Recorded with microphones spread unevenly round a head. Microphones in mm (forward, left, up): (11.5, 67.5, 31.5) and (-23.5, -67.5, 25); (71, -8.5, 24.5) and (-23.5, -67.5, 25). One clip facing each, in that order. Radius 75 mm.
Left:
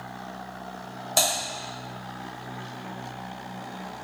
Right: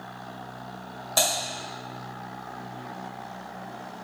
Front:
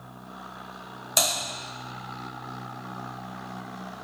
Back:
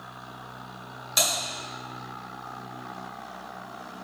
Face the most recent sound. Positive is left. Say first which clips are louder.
# even, front 1 dB
turn(degrees=0)